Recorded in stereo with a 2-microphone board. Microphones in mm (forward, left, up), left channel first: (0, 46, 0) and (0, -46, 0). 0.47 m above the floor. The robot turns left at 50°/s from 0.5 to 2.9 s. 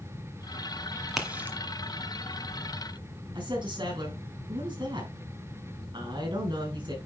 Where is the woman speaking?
55° right (ahead or behind), 5 m.